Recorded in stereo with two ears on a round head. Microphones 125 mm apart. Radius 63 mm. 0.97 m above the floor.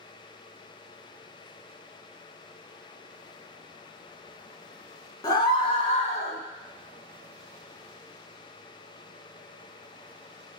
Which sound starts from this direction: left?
A scream, at 5.2 s.